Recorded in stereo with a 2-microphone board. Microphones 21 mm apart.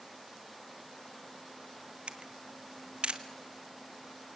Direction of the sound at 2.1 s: 60° right (ahead or behind).